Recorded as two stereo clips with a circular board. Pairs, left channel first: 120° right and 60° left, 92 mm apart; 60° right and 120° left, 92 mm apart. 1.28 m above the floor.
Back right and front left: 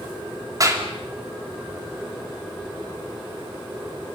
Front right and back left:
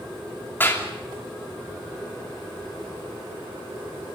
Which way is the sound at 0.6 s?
10° left.